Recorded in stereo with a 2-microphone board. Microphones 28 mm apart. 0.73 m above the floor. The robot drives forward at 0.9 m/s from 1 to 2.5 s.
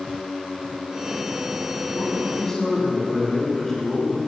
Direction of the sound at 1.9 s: 15° left (ahead or behind).